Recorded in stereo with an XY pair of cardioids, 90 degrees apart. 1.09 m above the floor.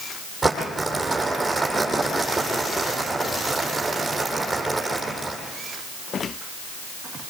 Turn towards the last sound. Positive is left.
turn(degrees=-10)